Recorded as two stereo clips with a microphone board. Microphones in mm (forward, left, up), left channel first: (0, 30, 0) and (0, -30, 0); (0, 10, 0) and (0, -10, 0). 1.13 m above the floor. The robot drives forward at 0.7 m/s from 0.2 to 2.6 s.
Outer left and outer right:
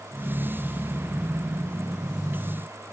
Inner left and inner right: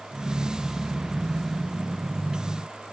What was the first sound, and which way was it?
Only background noise.